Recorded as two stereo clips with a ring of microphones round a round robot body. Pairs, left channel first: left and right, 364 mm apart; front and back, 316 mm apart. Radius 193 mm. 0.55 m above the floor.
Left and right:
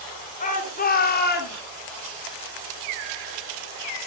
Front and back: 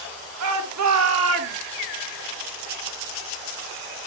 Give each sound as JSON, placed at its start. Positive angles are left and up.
{"t": 0.4, "sound": "a shout", "azimuth_deg": 160, "distance_m": 2.5}